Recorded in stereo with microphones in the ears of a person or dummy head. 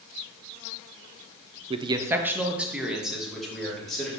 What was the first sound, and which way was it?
A man speaking, 35° right (ahead or behind).